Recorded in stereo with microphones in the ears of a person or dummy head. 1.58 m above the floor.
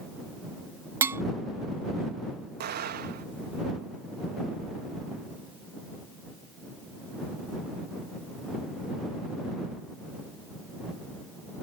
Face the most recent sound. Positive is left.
turn(degrees=-55)  # may be behind; listen again after turning